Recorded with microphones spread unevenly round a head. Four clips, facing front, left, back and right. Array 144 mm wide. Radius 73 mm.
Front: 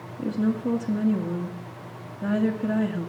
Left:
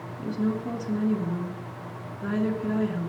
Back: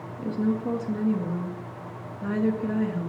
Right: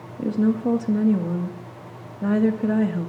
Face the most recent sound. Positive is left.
turn(degrees=-80)